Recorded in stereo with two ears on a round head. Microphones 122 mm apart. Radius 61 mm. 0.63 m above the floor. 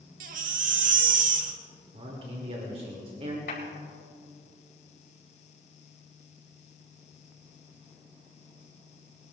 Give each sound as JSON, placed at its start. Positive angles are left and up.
{"t": 0.2, "sound": "a baby crying", "side_deg": -65, "distance_m": 1.3}
{"t": 1.9, "sound": "a man speaking", "side_deg": -45, "distance_m": 2.5}
{"t": 3.5, "sound": "a clap", "side_deg": 80, "distance_m": 5.0}